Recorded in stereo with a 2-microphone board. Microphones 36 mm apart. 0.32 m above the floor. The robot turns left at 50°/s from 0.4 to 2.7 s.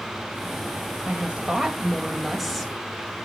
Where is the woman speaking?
115° right, 1.4 m; by 2.7 s 165° left, 1.4 m.